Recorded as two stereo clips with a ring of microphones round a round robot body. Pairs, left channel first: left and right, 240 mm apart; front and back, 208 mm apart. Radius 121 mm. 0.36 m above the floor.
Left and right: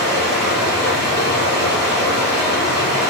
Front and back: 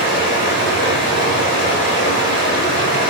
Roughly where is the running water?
Ahead.